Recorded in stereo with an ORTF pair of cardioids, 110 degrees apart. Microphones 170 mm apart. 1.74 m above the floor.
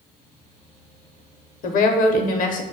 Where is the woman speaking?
55° left, 0.5 m.